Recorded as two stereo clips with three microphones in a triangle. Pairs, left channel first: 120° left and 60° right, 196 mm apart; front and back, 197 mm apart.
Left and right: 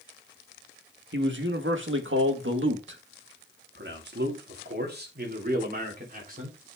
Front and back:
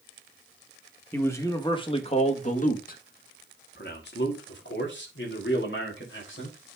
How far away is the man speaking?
About 1.8 m.